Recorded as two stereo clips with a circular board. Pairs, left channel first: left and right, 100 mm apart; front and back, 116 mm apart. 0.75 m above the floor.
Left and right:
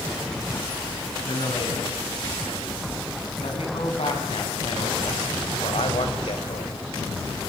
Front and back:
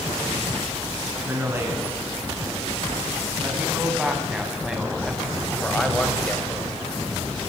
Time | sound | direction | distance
1.2 | a man speaking | 110° left | 8.5 m